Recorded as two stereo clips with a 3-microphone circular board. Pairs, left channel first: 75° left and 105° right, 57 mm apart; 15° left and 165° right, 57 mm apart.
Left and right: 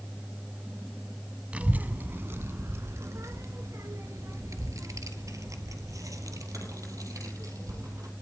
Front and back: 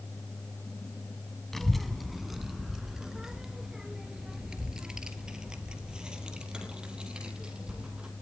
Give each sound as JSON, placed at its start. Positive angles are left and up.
{"t": 1.5, "sound": "a child speaking", "azimuth_deg": -65, "distance_m": 0.8}